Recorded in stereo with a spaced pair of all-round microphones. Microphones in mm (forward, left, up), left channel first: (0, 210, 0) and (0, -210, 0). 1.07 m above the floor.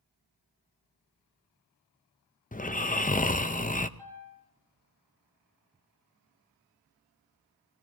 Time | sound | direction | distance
2.5 | snoring | 20° left (ahead or behind) | 0.5 m
4.0 | a piano | 60° right (ahead or behind) | 9.5 m